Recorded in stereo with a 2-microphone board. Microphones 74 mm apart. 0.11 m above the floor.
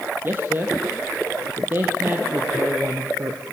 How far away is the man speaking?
About 3 m.